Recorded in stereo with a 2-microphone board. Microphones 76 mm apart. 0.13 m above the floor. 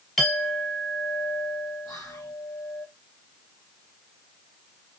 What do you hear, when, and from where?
0.2 s a clink: 5° left (ahead or behind), 1.3 m
1.9 s whispering: 60° left (ahead or behind), 2.5 m